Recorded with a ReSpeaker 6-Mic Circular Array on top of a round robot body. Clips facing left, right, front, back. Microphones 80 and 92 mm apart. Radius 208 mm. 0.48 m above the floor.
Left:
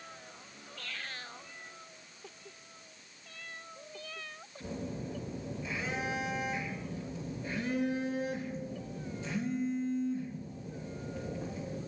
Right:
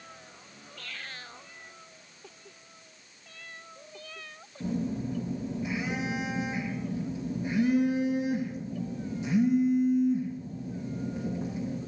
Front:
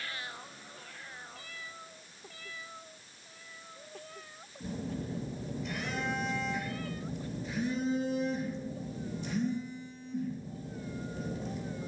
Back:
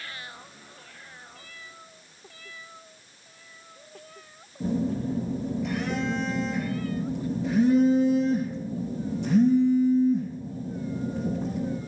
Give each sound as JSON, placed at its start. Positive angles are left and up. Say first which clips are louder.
{"t": 4.6, "sound": "a phone buzzing", "louder": "right 8 dB, back 11 dB", "azimuth_deg": -160, "distance_m": 4.0}